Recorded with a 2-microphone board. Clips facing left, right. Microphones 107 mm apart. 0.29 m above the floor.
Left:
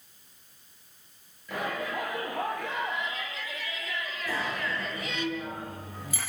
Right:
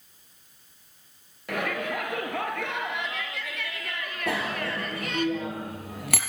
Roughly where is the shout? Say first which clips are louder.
Right 3 dB; right.